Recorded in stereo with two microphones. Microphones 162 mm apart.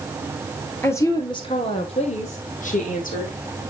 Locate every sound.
0.8 s a woman speaking: 15° left (ahead or behind), 1.9 m; by 3.4 s 60° left (ahead or behind), 4 m